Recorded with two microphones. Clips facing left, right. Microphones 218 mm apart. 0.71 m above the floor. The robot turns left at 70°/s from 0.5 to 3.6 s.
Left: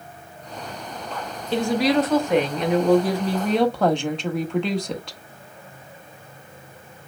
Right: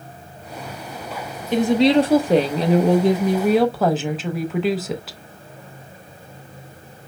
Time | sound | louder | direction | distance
1.5 | a woman speaking | right 5 dB | 25° right | 0.8 m